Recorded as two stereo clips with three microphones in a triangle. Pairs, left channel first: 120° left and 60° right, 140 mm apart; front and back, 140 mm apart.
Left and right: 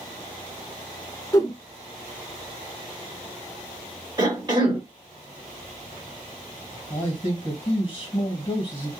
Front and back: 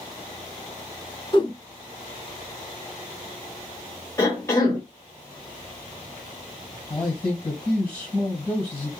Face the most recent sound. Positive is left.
turn(degrees=70)